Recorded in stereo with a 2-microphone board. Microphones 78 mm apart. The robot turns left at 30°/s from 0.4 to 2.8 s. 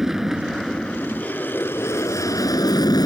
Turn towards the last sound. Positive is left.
turn(degrees=115)